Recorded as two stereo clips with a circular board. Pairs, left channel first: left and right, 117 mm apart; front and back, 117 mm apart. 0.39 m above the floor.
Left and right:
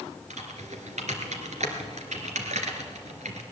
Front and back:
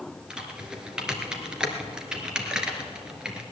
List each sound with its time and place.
0.3 s typing on a keyboard: 95° right, 1.8 m